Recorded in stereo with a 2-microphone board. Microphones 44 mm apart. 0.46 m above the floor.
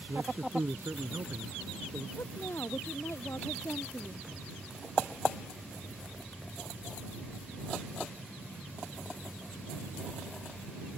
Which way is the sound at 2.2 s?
85° left.